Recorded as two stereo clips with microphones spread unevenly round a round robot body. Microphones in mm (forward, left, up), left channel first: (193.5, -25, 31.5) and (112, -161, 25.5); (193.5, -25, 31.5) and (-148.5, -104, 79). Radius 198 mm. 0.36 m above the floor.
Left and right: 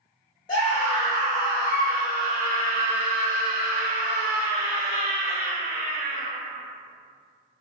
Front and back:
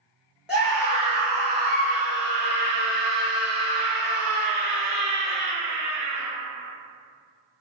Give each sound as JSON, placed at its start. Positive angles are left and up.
{"t": 0.5, "sound": "a scream", "azimuth_deg": 95, "distance_m": 0.9}